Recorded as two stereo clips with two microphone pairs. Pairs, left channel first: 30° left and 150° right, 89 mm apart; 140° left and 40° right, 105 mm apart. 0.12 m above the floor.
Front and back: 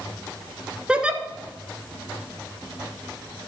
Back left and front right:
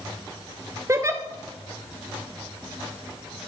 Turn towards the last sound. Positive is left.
turn(degrees=-80)